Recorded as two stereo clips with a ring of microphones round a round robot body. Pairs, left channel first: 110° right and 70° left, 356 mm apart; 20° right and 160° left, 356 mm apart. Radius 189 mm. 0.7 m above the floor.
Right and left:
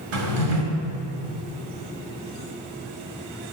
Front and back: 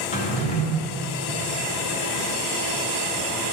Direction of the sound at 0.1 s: 50° left.